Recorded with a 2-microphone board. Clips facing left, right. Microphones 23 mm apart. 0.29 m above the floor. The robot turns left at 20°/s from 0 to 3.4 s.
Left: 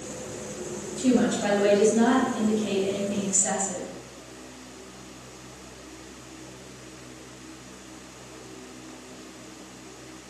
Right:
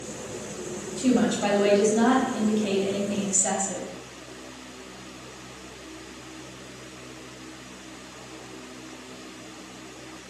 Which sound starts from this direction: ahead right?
A woman speaking, at 1.0 s.